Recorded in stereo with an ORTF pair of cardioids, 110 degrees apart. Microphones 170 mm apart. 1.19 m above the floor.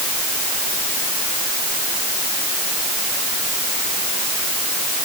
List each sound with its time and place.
Only background noise.